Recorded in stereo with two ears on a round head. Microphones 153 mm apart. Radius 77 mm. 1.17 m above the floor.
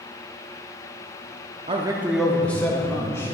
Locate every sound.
1.7 s a man speaking: 30° right (ahead or behind), 0.7 m; by 3.4 s 15° left (ahead or behind), 2.5 m